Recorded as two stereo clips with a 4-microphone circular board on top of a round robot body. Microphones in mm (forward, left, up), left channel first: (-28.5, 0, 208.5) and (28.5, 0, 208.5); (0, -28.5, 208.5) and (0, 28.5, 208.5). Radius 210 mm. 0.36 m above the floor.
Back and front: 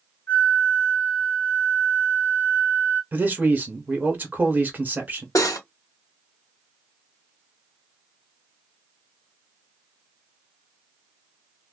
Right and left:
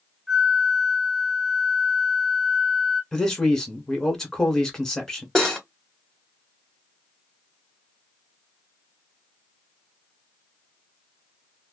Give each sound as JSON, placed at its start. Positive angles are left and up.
{"t": 0.3, "sound": "a flute", "azimuth_deg": 180, "distance_m": 1.6}
{"t": 3.1, "sound": "a man speaking", "azimuth_deg": -20, "distance_m": 1.6}
{"t": 5.3, "sound": "cutlery clinking", "azimuth_deg": -175, "distance_m": 1.3}